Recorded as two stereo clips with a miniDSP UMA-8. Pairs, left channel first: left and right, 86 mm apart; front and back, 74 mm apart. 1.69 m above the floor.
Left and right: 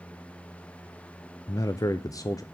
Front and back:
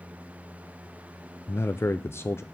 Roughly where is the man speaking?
Ahead left.